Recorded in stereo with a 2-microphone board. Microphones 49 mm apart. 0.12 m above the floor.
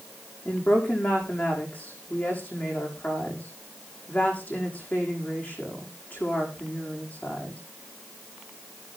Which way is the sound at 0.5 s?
35° left (ahead or behind).